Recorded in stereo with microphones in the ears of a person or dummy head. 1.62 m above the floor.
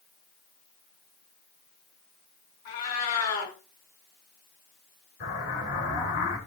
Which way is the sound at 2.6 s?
55° left (ahead or behind).